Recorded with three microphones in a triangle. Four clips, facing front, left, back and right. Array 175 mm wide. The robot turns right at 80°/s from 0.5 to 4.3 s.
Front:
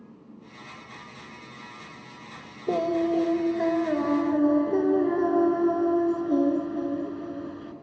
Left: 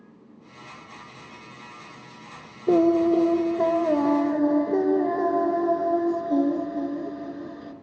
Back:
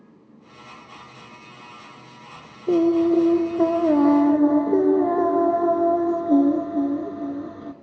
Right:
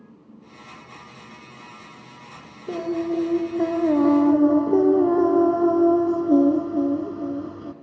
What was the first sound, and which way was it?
Singing, 100° left.